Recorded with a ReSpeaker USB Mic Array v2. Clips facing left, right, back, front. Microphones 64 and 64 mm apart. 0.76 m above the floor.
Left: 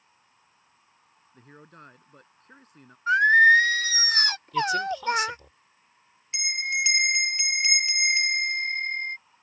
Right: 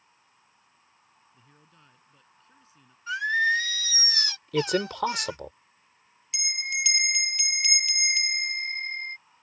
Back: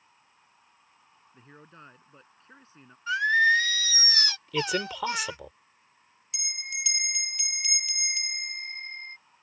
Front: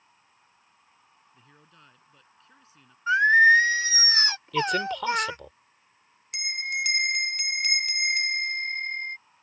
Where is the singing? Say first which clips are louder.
Left 8 dB, front 5 dB; 55° left.